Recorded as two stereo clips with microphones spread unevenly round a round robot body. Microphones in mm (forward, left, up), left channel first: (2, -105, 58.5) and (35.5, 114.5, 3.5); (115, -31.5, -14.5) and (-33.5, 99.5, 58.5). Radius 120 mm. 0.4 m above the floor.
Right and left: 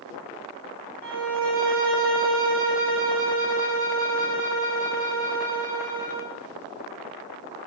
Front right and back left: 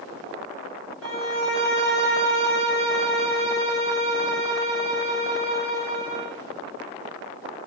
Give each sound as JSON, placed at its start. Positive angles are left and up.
{"t": 1.0, "sound": "a violin", "azimuth_deg": 130, "distance_m": 0.6}